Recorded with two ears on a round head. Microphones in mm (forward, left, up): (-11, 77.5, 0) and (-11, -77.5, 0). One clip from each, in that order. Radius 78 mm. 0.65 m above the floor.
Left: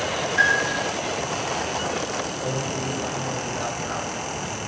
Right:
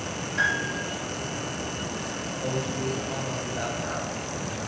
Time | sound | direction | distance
0.4 | a piano | 30° left (ahead or behind) | 2.5 m
2.4 | a man speaking | 10° left (ahead or behind) | 2.5 m